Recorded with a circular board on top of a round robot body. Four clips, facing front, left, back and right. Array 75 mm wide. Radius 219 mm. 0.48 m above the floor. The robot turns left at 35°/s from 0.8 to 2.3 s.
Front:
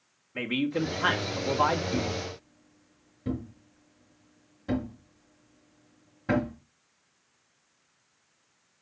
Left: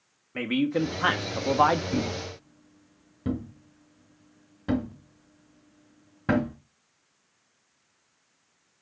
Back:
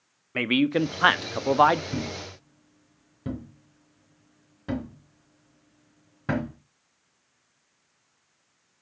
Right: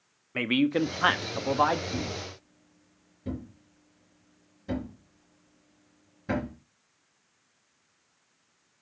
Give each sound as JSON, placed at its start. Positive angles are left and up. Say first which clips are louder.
{"t": 0.3, "sound": "a man speaking", "louder": "right 1 dB, back 6 dB", "azimuth_deg": -160, "distance_m": 1.0}
{"t": 1.9, "sound": "a thud", "louder": "left 5 dB, front 2 dB", "azimuth_deg": 130, "distance_m": 2.5}